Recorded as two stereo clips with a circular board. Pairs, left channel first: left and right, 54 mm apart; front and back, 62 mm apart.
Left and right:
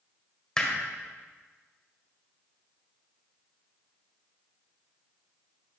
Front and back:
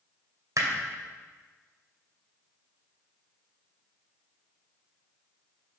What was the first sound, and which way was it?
Hammering, 165° left.